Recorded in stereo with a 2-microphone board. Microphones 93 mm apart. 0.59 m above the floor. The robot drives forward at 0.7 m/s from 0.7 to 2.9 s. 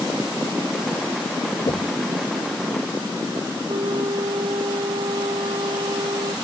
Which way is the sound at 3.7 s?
70° right (ahead or behind).